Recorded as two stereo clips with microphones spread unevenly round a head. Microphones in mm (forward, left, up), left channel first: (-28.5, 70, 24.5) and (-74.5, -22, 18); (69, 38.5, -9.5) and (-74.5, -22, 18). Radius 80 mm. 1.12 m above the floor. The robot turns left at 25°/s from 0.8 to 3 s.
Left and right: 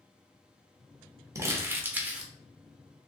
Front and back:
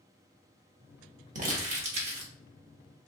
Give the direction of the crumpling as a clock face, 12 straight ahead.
6 o'clock.